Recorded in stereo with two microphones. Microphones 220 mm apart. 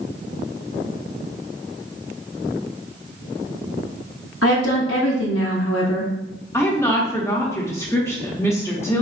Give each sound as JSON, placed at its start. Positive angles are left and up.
{"t": 4.4, "sound": "a woman speaking", "side_deg": 75, "distance_m": 0.8}
{"t": 6.5, "sound": "a woman speaking", "side_deg": 10, "distance_m": 0.7}